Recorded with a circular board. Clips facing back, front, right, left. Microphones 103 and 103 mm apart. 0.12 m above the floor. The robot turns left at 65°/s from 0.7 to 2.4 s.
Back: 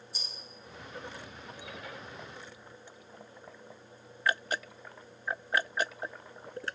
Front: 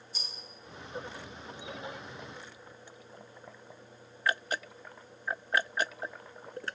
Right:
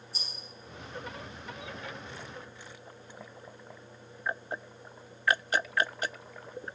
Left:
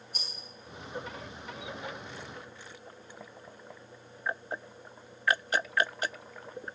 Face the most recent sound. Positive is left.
turn(degrees=-15)